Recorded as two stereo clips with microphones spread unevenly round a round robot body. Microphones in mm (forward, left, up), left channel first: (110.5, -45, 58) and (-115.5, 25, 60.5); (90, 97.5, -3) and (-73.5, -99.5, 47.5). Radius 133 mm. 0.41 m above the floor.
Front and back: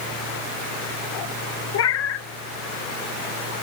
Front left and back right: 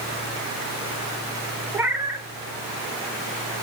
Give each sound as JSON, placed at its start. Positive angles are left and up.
{"t": 1.7, "sound": "a cat meowing", "azimuth_deg": -45, "distance_m": 0.8}